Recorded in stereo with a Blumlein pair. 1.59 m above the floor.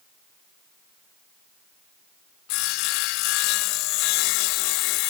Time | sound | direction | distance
2.5 | sawing | 45° left | ?